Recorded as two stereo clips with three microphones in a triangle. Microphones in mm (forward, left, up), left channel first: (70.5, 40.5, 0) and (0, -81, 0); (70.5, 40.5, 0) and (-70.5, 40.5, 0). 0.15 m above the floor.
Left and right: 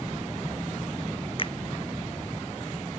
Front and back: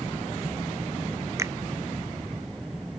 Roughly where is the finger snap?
Left.